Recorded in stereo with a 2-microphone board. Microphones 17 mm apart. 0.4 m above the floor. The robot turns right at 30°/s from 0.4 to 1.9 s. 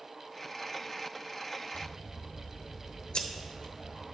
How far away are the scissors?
About 1.0 m.